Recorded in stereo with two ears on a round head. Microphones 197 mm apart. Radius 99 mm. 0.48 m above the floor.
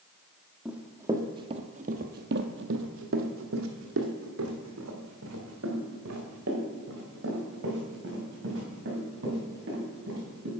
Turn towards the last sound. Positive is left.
turn(degrees=-50)  # may be behind; listen again after turning